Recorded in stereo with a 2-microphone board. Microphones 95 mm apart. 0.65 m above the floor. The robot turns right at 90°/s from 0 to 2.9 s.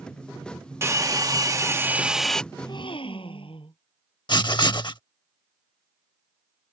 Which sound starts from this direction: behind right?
A hair dryer, at 0.8 s.